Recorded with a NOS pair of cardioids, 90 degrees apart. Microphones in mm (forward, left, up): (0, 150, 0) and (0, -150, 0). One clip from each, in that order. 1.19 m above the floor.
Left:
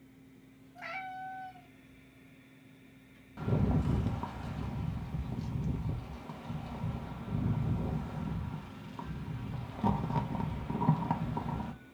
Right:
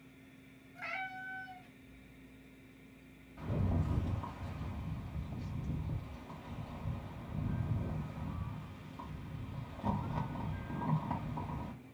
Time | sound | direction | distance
0.8 | a cat meowing | 10° right | 1.4 m
3.4 | a rattle | 45° left | 0.7 m